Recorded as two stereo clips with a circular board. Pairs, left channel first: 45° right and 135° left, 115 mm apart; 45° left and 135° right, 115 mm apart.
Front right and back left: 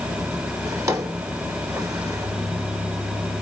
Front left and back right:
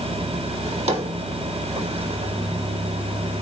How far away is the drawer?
About 1.7 m.